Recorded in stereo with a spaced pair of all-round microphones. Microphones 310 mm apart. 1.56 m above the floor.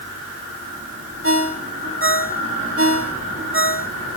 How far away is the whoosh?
No whoosh in this recording.